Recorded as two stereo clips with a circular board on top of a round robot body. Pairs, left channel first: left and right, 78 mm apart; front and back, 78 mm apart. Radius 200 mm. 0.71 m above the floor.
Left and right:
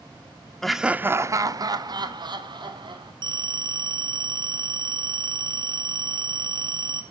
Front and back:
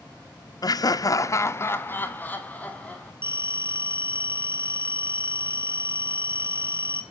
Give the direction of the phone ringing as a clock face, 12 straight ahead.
4 o'clock.